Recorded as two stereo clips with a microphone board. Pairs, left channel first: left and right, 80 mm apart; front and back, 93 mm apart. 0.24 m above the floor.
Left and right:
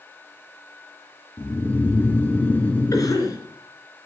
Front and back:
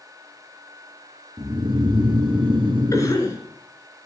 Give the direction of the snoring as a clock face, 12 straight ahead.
7 o'clock.